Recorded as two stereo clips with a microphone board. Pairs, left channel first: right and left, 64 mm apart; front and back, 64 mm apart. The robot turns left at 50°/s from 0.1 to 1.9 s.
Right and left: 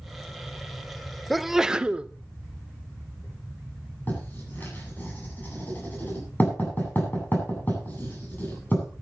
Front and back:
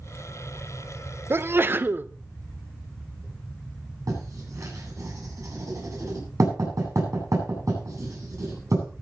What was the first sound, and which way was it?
A sneeze, straight behind.